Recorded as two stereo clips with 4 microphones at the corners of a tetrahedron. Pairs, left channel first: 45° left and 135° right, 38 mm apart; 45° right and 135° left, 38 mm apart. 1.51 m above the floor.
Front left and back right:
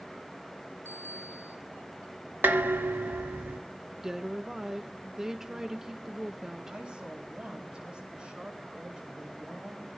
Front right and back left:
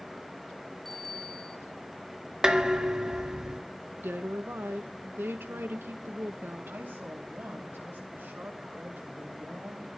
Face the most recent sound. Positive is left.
turn(degrees=160)